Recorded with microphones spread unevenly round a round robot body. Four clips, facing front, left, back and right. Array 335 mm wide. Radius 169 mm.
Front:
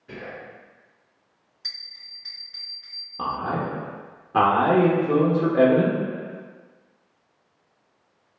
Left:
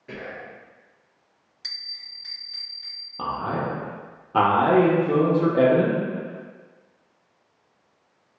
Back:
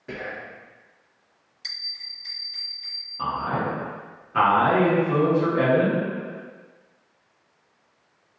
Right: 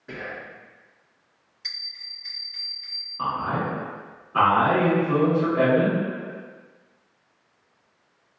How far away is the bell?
About 1.3 m.